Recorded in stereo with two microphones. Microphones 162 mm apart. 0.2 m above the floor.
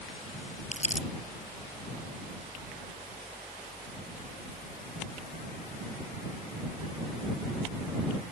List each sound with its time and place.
0.7 s crumpling: 50° left (ahead or behind)